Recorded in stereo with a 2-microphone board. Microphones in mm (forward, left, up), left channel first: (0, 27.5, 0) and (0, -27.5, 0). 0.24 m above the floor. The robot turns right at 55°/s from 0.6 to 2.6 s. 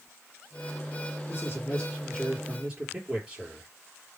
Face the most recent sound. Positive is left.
turn(degrees=-165)